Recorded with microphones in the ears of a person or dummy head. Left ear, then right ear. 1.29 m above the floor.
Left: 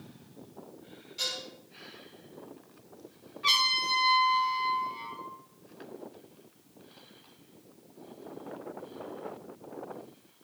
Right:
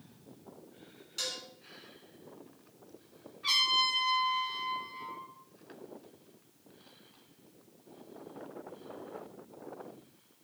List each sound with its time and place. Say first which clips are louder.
1.2 s dishes clattering: left 4 dB; 40° right (ahead or behind), 2.5 m
3.4 s a trumpet: left 2 dB; 30° left (ahead or behind), 3 m